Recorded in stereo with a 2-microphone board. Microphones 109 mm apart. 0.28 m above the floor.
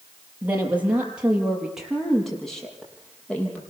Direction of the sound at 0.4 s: 15° right (ahead or behind).